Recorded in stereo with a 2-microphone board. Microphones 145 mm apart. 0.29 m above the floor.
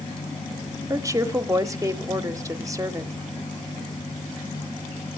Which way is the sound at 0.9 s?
25° right (ahead or behind).